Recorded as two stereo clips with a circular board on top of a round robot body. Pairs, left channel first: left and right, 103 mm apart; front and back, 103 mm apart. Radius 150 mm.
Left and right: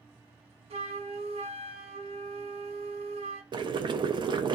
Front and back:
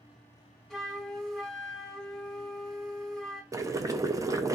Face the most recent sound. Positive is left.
turn(degrees=-125)